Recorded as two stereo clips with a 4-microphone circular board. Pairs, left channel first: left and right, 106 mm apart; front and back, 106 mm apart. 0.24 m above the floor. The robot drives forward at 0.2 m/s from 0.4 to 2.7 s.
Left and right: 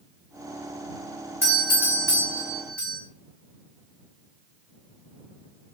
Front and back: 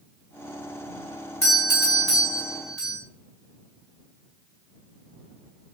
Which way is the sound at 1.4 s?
75° right.